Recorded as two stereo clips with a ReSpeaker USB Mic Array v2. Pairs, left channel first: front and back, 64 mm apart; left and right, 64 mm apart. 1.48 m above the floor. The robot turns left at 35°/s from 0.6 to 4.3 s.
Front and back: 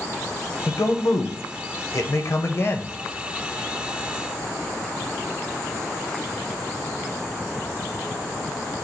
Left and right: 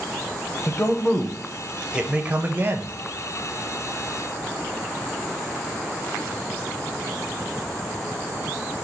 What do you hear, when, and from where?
0.7 s a man speaking: 30° left, 0.6 m; by 3.0 s 50° right, 0.6 m